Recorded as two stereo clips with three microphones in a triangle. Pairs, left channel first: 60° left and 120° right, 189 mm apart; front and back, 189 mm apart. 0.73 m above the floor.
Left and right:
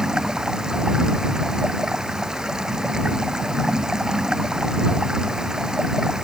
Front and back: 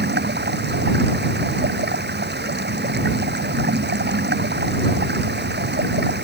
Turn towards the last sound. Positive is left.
turn(degrees=155)